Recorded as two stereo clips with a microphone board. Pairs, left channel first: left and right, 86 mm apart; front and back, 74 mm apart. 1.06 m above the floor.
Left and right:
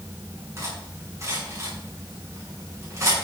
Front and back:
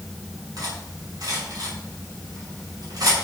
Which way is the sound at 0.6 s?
145° right.